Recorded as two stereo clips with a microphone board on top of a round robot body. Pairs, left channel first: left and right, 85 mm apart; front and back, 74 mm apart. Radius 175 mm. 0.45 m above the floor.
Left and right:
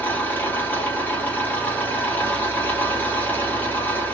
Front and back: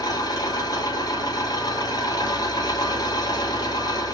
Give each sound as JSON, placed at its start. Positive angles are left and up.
{"t": 0.0, "sound": "an engine running", "azimuth_deg": 25, "distance_m": 1.9}